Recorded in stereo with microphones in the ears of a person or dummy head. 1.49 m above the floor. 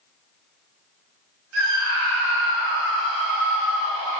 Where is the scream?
75° right (ahead or behind), 1.0 m.